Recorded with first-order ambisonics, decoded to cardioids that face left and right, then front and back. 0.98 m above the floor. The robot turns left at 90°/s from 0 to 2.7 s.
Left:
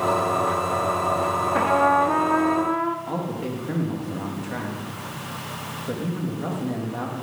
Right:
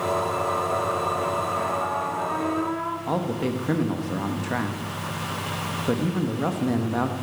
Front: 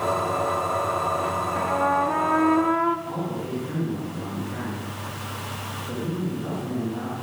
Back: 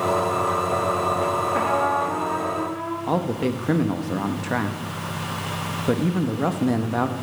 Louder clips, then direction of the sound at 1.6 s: Left 7 dB, front 1 dB; 120° left.